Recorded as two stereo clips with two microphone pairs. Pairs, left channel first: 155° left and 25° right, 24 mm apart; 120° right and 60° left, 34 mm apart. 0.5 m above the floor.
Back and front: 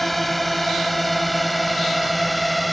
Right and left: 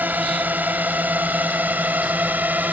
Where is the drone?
70° left; by 2.7 s 65° left.